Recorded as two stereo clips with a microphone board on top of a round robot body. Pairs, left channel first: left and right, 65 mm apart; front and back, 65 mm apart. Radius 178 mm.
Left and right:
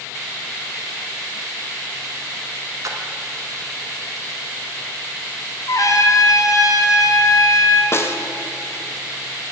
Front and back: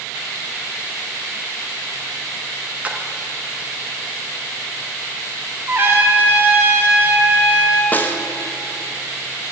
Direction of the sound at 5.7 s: 120° left.